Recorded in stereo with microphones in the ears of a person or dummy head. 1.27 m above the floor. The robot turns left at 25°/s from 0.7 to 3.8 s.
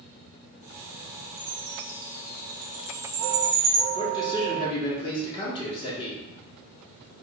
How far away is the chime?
About 0.8 m.